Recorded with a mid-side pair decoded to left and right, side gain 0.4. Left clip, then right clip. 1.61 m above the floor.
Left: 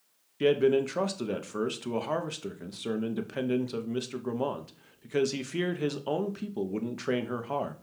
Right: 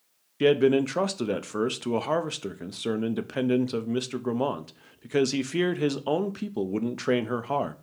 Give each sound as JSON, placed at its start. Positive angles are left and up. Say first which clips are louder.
{"t": 0.4, "sound": "a man speaking", "louder": "right 3 dB", "azimuth_deg": -35, "distance_m": 0.6}